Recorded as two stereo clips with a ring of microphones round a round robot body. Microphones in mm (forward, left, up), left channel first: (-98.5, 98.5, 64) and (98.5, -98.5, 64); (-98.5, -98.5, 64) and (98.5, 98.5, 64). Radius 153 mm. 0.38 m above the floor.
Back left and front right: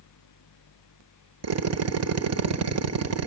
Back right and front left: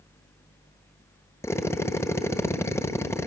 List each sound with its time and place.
1.4 s a drill: 55° right, 1.5 m